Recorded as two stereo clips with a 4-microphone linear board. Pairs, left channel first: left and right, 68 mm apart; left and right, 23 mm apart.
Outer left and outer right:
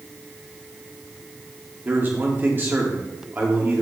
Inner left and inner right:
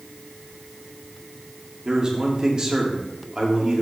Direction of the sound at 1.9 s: 30° right (ahead or behind).